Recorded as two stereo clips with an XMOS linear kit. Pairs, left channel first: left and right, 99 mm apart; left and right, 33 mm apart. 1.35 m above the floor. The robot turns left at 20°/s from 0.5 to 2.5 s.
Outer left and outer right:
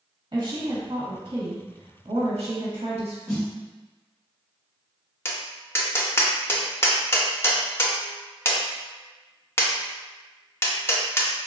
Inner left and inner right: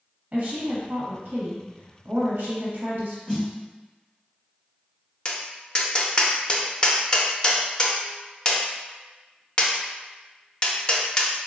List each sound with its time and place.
0.3 s a woman speaking: 50° right, 1.1 m; by 3.2 s 90° right, 1.1 m
3.3 s a snare drum: 20° left (ahead or behind), 1.7 m
5.2 s tapping: 25° left (ahead or behind), 0.5 m